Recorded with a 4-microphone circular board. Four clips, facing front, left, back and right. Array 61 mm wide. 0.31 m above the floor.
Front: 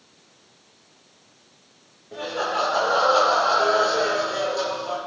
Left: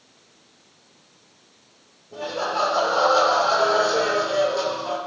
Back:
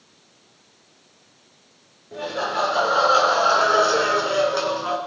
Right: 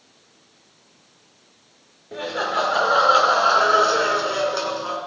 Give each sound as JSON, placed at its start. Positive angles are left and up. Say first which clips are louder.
{"t": 2.1, "sound": "laughter", "louder": "right 2 dB, even", "azimuth_deg": -90, "distance_m": 4.0}